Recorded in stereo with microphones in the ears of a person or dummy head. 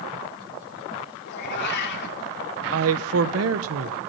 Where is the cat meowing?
60° left (ahead or behind), 2.5 m.